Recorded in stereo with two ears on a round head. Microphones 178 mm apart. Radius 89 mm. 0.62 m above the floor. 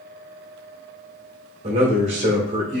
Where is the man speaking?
40° right (ahead or behind), 1.4 m.